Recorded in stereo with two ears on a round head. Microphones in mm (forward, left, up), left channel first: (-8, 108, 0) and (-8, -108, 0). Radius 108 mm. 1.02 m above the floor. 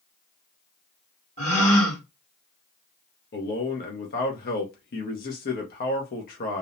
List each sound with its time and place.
1.4 s a gasp: 30° left (ahead or behind), 1.7 m
3.3 s a man speaking: 40° left (ahead or behind), 0.6 m